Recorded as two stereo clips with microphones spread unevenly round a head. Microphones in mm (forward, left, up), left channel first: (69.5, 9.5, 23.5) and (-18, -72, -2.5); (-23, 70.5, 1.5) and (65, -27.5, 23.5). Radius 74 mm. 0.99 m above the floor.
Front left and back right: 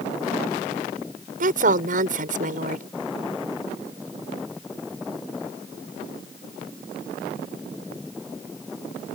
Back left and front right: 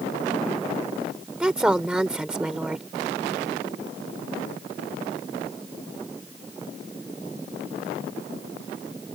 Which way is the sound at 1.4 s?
130° right.